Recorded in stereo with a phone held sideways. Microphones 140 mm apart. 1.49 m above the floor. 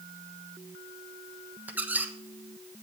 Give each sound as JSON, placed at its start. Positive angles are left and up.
{"t": 1.7, "sound": "a squeak", "side_deg": -10, "distance_m": 0.9}